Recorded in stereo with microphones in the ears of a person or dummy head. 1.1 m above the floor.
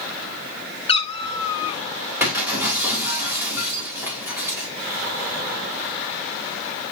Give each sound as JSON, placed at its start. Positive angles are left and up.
{"t": 0.9, "sound": "a cat meowing", "side_deg": 35, "distance_m": 0.6}
{"t": 2.2, "sound": "breaking glass", "side_deg": -10, "distance_m": 3.0}